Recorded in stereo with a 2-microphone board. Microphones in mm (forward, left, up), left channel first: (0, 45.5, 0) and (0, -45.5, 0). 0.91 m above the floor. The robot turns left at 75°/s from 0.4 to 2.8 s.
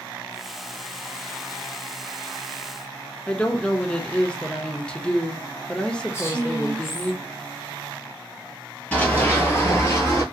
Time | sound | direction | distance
3.3 | a woman speaking | 10° left (ahead or behind) | 0.5 m
6.1 | a woman speaking | 30° left (ahead or behind) | 1.0 m
8.9 | running footsteps | 15° left (ahead or behind) | 1.1 m